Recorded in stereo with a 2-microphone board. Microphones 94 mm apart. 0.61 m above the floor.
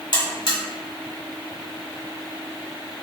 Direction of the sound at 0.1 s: 55° left (ahead or behind).